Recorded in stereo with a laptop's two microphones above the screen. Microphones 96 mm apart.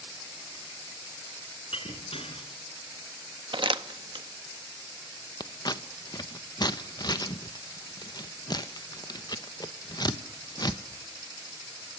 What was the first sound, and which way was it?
Breaking glass, 75° left (ahead or behind).